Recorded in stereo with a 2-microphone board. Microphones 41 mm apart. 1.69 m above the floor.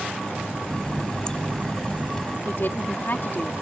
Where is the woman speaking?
60° left (ahead or behind).